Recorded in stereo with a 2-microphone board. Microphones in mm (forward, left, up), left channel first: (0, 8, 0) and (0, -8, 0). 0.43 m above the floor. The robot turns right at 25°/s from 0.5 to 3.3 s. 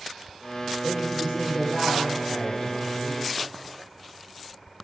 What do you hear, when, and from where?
0.8 s a woman speaking: 60° right, 7.5 m; by 3.2 s straight ahead, 7.5 m